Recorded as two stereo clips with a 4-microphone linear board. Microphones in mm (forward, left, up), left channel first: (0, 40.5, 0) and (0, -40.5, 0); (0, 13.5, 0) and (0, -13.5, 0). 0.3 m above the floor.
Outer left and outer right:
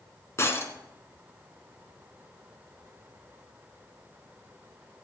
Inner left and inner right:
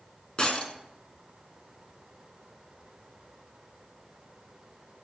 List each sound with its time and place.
0.4 s breaking glass: 35° left (ahead or behind), 1.9 m